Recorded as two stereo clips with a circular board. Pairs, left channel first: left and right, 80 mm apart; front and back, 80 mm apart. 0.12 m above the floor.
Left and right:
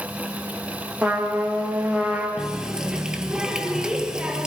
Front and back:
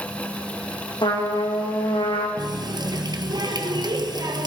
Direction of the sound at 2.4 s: 170° right.